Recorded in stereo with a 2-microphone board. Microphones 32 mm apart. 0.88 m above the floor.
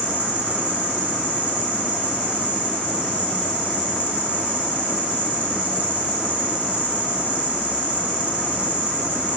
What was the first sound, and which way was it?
An insect, 55° right (ahead or behind).